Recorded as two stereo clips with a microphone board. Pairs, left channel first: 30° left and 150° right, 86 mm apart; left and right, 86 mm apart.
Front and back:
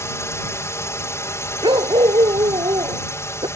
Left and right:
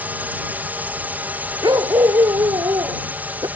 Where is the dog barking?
130° right.